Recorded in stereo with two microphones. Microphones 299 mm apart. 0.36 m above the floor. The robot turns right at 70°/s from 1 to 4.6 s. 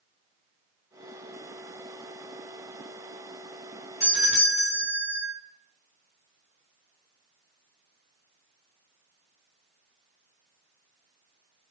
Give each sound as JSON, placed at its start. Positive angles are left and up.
{"t": 4.0, "sound": "a doorbell", "azimuth_deg": 55, "distance_m": 1.6}